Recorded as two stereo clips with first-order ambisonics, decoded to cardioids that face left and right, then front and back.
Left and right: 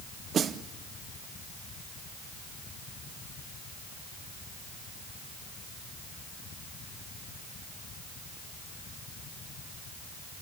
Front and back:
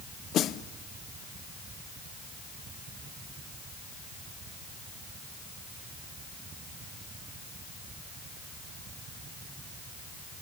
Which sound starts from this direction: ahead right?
A snare drum, at 0.3 s.